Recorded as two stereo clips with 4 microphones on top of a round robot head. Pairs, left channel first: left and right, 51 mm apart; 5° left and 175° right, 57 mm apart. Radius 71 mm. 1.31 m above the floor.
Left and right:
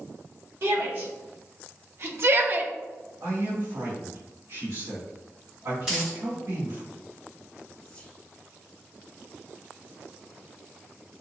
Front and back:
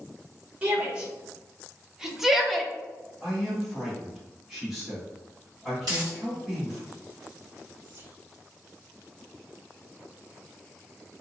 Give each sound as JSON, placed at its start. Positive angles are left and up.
{"t": 0.6, "sound": "a shout", "azimuth_deg": -110, "distance_m": 1.4}
{"t": 3.2, "sound": "a man speaking", "azimuth_deg": -90, "distance_m": 1.7}
{"t": 5.8, "sound": "a dropped coin", "azimuth_deg": -170, "distance_m": 0.9}
{"t": 7.8, "sound": "whispering", "azimuth_deg": 150, "distance_m": 1.1}